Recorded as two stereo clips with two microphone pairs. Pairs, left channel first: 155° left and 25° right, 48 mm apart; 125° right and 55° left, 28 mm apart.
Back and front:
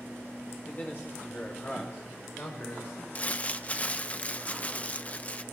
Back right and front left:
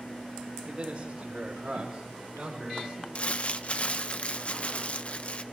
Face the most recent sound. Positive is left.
turn(degrees=-155)